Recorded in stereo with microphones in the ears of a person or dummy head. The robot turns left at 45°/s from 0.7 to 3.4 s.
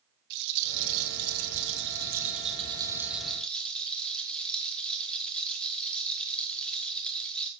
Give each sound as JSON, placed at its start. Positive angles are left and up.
{"t": 0.3, "sound": "a rattle", "azimuth_deg": -65, "distance_m": 2.0}